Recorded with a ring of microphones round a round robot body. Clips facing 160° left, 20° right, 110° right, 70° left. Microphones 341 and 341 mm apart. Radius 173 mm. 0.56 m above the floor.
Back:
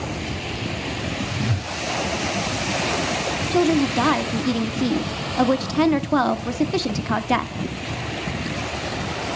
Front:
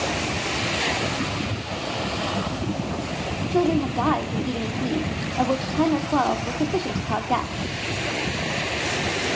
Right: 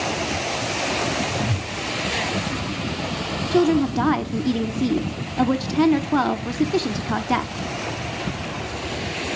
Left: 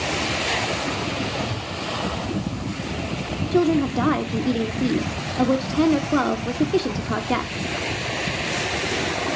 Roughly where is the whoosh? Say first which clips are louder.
Back 1 dB, right 2 dB; behind.